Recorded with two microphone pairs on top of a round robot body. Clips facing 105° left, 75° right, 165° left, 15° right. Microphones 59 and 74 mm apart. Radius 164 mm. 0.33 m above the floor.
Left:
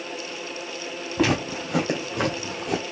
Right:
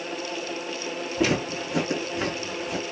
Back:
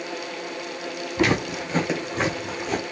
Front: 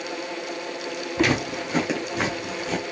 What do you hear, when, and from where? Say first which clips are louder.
1.2 s footsteps: left 2 dB, back 1 dB; 70° left, 2.5 m